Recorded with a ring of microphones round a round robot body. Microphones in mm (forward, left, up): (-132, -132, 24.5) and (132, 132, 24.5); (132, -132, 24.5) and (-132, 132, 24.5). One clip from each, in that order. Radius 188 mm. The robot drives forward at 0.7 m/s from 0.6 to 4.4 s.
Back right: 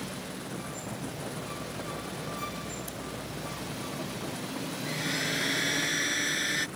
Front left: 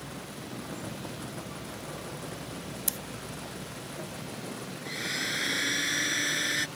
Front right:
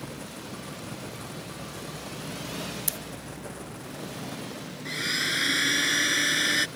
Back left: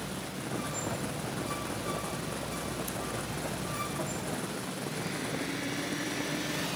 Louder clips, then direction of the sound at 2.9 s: Front left 4 dB, front right 3 dB; straight ahead.